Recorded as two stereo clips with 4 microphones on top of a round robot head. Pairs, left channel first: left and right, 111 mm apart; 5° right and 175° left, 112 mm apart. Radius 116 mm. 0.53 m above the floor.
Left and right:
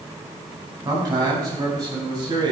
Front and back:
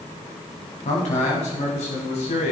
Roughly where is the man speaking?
Ahead right.